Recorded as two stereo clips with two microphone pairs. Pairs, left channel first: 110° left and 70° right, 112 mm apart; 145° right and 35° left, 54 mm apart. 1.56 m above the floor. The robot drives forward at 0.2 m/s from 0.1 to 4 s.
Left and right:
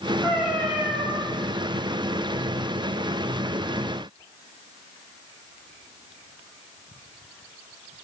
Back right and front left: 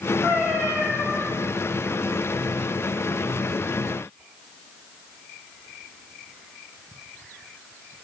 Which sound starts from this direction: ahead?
A cat meowing, at 0.2 s.